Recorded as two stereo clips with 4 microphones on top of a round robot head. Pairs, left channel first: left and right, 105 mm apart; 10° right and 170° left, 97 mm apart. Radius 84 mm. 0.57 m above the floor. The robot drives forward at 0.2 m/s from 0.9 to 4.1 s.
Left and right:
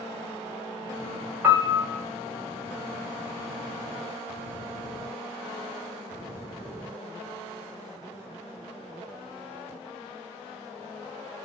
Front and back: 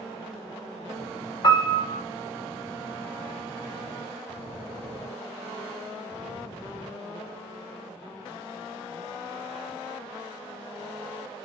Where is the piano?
25° right, 0.6 m; by 2.0 s 40° right, 0.6 m.